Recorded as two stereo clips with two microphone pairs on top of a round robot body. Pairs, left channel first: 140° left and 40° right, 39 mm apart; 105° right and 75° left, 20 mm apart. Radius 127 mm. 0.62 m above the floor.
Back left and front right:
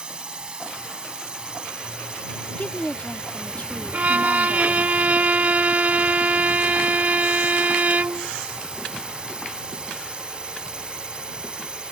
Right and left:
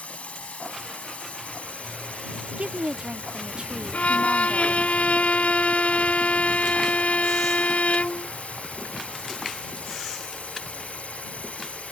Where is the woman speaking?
85° left.